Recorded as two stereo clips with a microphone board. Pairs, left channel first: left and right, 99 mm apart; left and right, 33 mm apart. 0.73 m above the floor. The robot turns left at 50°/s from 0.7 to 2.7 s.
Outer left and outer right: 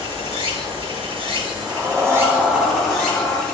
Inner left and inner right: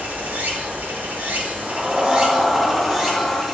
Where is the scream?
160° right, 1.4 m; by 3.4 s 145° left, 1.4 m.